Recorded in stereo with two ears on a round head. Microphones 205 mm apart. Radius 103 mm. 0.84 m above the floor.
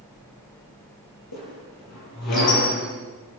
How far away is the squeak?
About 8.5 m.